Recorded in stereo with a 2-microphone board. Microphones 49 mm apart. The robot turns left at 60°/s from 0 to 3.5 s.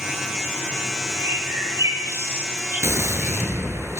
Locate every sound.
1.2 s a bird: 55° right (ahead or behind), 7.5 m; by 3.6 s 15° left (ahead or behind), 7.5 m
2.8 s a gunshot: 70° right, 7 m; by 4.0 s 110° right, 7 m